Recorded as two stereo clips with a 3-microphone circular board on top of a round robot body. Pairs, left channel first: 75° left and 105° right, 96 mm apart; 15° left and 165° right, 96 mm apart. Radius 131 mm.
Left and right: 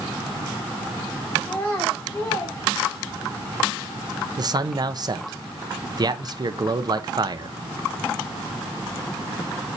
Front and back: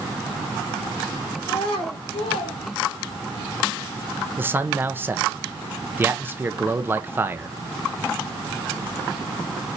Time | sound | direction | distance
1.4 | a child speaking | 5° left | 4 m
4.4 | a man speaking | 110° right | 1.0 m